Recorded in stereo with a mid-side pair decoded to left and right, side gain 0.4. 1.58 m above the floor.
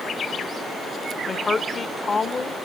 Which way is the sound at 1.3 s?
40° left.